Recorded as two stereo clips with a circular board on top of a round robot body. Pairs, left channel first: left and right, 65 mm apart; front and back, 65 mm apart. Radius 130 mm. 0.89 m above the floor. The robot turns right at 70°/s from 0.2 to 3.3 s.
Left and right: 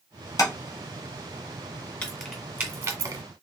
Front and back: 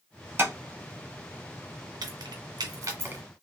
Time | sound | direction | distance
0.4 | tapping | 120° left | 1.4 m
2.0 | keys jangling | 165° left | 1.5 m